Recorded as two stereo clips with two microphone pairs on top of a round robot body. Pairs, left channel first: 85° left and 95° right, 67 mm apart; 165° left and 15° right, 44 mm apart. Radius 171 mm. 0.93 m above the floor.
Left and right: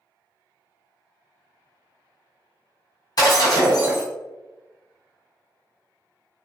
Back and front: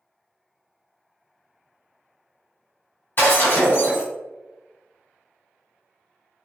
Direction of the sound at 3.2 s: 120° left.